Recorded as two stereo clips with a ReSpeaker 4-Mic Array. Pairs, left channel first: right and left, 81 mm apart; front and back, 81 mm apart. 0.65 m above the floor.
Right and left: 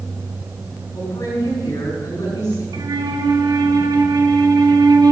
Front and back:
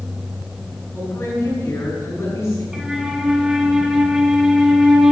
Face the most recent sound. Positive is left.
turn(degrees=95)